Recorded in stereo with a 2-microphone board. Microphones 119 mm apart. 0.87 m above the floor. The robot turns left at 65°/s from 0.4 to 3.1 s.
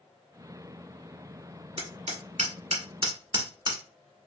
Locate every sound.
1.8 s hammering: 50° right (ahead or behind), 1.2 m; by 3.8 s 40° right (ahead or behind), 1.2 m